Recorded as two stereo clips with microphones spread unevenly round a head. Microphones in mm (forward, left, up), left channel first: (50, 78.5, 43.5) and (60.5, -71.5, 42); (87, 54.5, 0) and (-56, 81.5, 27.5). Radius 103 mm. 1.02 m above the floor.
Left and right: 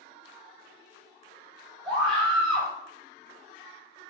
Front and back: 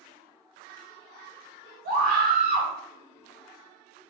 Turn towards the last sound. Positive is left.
turn(degrees=-175)